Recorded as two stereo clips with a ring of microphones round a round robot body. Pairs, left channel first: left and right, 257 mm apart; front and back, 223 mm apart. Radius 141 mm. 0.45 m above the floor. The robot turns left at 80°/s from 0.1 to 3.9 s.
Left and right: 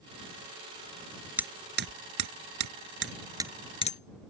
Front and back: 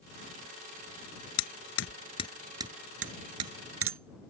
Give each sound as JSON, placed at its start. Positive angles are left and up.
{"t": 1.4, "sound": "hammering", "azimuth_deg": -5}